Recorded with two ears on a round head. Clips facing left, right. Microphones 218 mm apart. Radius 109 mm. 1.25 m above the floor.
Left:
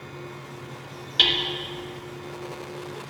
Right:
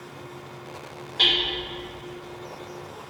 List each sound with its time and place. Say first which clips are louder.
1.2 s hammering: even; 50° left (ahead or behind), 1.4 m